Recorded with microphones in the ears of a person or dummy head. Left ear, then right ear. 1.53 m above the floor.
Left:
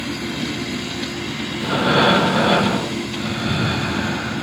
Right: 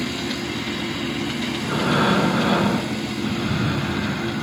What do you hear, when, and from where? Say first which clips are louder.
1.6 s breathing: left 5 dB; 10° left (ahead or behind), 0.6 m